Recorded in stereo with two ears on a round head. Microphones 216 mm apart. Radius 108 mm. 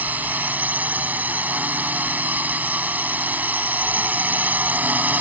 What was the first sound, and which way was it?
A drone, 5° right (ahead or behind).